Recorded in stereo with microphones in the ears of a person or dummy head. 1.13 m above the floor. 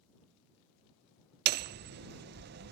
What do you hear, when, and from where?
1.5 s hammering: 55° right (ahead or behind)